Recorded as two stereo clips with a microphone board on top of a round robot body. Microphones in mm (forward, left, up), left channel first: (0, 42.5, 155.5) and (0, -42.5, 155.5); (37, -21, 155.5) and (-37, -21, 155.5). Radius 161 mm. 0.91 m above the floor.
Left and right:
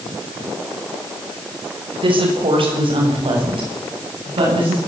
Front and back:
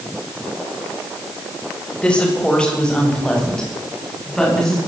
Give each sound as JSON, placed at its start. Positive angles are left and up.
{"t": 2.0, "sound": "a woman speaking", "azimuth_deg": -75, "distance_m": 6.5}